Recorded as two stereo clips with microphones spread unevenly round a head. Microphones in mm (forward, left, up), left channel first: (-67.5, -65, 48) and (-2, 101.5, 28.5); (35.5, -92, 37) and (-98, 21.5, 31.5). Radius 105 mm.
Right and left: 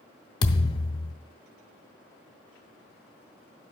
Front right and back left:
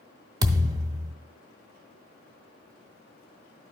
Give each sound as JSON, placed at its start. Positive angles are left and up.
{"t": 0.4, "sound": "a thud", "azimuth_deg": -155, "distance_m": 0.6}